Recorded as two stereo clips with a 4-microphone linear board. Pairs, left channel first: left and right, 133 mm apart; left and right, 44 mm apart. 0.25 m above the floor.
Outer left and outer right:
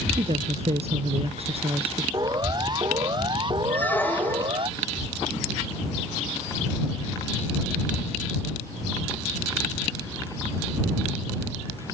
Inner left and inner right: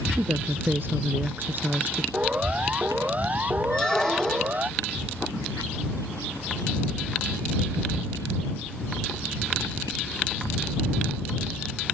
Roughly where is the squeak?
Centre.